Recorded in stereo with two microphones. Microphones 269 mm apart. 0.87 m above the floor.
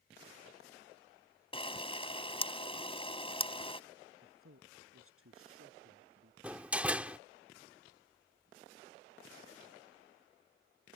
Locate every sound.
1.5 s a camera shutter: 20° left (ahead or behind)
4.2 s a man speaking: 55° right (ahead or behind)
6.4 s a door slam: 5° right (ahead or behind)